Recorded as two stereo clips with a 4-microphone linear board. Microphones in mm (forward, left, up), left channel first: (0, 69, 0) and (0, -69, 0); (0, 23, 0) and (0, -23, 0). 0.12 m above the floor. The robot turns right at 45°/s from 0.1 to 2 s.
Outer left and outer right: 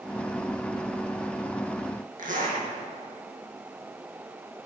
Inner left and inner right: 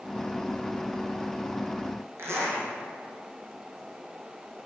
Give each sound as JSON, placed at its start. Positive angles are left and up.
{"t": 2.2, "sound": "a zipper", "side_deg": -65, "distance_m": 1.7}